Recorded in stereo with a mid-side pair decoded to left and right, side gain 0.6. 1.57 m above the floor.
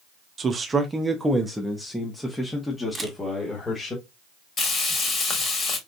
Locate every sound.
0.4 s a man speaking: 35° right, 0.9 m; by 4.0 s 25° left, 2 m
3.0 s a camera shutter: 15° right, 1.7 m
4.6 s frying: 40° left, 2.5 m